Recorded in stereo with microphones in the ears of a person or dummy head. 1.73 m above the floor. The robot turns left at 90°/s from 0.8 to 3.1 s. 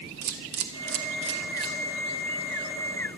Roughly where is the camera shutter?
Right.